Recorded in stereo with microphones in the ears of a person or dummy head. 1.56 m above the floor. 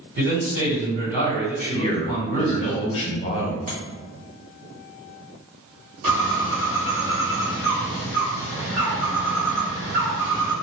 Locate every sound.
0.2 s a man speaking: 55° right (ahead or behind), 1.6 m
1.7 s a man speaking: 35° left (ahead or behind), 0.9 m
3.7 s tapping: 35° right (ahead or behind), 0.9 m
6.0 s a bird: 40° right (ahead or behind), 1.6 m